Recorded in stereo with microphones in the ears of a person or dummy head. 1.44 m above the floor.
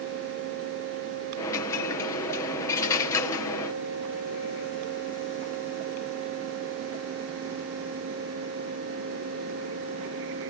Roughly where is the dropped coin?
Left.